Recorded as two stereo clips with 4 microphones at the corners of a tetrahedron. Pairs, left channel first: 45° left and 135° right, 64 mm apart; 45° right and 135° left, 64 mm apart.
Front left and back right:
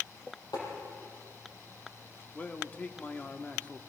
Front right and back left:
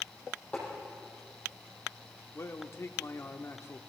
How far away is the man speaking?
About 1.2 m.